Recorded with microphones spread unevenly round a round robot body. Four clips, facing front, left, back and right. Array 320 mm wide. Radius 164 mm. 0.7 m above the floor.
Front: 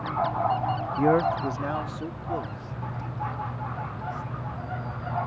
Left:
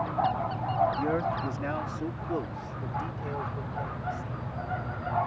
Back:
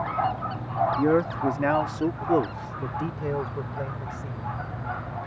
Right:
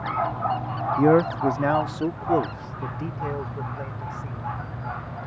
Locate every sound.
1.0 s a man speaking: 100° right; by 4.6 s 155° right